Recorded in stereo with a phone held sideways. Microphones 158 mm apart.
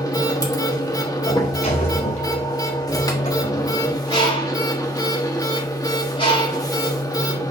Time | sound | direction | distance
0.0 | a machine running | 25° left (ahead or behind) | 1.1 m
1.3 | a sliding door | 45° left (ahead or behind) | 2.5 m
4.1 | a bird | 35° left (ahead or behind) | 4.5 m